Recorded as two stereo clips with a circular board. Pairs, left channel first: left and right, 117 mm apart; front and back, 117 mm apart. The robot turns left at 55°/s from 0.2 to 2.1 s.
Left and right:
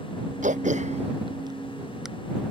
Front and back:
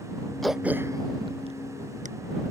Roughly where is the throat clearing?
Right.